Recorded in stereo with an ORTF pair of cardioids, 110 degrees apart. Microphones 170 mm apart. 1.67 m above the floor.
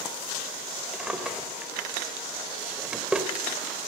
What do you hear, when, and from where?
0.9 s a drawer: 5° right, 3.5 m